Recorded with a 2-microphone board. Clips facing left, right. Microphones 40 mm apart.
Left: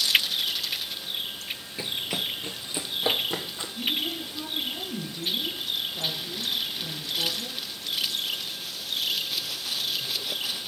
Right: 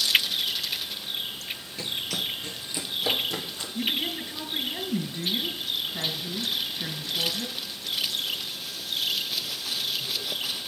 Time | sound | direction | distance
1.8 | running footsteps | 15° left (ahead or behind) | 0.5 m
3.8 | a woman speaking | 60° right (ahead or behind) | 3 m